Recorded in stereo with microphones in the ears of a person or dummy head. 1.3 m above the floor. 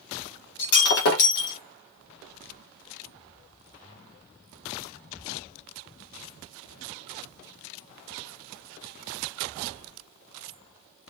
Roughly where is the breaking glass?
Left.